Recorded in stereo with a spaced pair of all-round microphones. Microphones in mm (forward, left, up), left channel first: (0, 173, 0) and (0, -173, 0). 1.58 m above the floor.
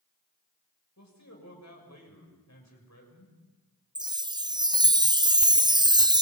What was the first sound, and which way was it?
A man speaking, 50° left (ahead or behind).